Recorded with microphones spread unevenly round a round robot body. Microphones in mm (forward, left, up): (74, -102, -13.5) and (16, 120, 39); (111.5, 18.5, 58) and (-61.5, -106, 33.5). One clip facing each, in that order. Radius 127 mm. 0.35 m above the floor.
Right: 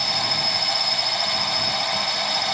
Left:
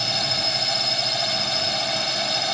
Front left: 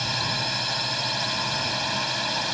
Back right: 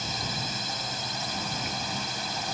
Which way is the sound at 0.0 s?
50° left.